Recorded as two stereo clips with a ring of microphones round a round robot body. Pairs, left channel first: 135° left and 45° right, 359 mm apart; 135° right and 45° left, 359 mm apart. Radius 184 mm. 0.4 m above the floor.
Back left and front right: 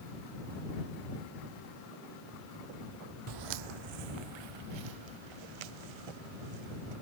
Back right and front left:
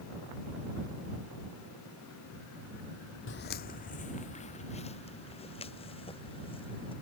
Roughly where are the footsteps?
Right.